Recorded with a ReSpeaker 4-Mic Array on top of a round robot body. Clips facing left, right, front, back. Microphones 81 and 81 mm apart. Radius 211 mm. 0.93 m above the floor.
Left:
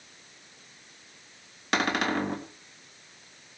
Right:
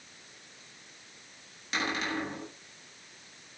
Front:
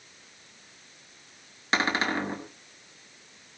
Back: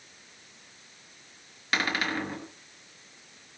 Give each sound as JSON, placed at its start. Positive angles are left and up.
{"t": 1.7, "sound": "a cupboard door", "azimuth_deg": 65, "distance_m": 2.0}